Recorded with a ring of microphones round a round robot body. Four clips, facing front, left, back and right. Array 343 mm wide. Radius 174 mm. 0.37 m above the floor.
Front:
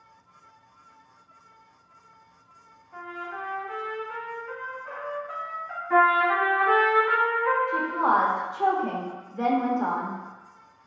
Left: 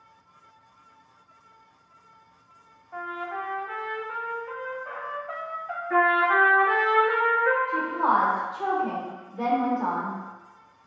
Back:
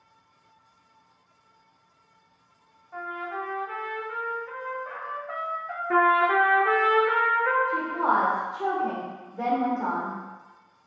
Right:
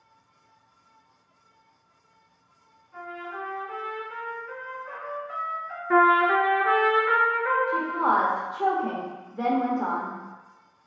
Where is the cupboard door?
No cupboard door in this recording.